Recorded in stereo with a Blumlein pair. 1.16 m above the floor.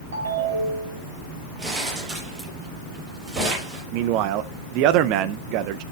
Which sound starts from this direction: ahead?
Crumpling, at 1.6 s.